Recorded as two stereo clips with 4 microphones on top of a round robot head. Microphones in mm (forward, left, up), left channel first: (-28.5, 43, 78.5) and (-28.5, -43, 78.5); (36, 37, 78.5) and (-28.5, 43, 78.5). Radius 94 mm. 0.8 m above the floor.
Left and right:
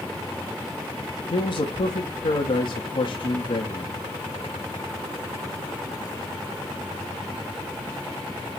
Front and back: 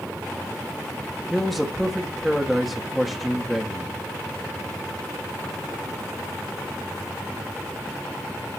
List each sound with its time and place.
1.3 s a man speaking: 80° left, 1.6 m